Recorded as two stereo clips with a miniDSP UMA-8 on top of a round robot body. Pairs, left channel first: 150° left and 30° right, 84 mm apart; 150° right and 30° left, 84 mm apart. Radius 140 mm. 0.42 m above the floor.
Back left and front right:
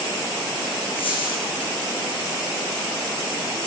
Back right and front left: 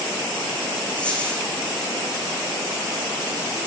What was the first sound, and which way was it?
A dropped coin, 135° left.